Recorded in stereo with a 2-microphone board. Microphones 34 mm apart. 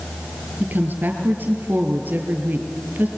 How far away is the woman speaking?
About 3 m.